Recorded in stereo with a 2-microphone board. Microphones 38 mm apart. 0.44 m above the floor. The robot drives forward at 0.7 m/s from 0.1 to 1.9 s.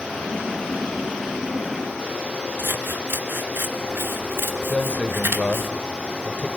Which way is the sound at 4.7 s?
35° left (ahead or behind).